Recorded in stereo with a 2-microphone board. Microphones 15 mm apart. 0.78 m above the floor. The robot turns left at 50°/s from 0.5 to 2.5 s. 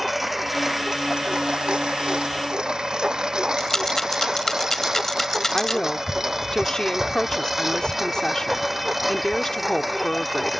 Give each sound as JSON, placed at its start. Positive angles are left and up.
{"t": 0.0, "sound": "a lawn mower", "side_deg": -15}
{"t": 3.6, "sound": "a rattle", "side_deg": 30}
{"t": 5.5, "sound": "a woman speaking", "side_deg": 45}